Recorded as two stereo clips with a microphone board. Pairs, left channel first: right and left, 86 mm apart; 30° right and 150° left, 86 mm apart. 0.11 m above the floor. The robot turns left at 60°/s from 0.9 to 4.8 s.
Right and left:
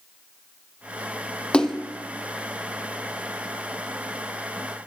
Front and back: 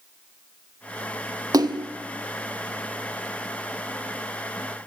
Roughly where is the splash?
Behind.